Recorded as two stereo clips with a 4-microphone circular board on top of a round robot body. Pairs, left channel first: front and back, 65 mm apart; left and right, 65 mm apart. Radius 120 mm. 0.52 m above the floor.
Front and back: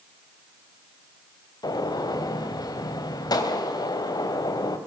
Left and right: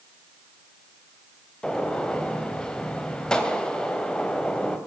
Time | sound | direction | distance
1.6 | a gunshot | 10° left | 3 m